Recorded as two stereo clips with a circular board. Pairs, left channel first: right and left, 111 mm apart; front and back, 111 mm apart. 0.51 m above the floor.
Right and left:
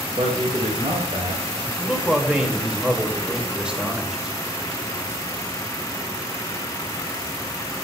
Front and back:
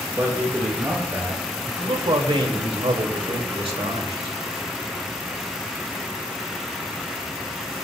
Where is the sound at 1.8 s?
170° left, 2.5 m.